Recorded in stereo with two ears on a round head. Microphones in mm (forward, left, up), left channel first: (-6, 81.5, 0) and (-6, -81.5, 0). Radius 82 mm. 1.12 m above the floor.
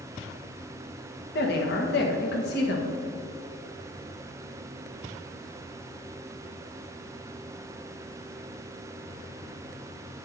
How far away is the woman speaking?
About 1.2 m.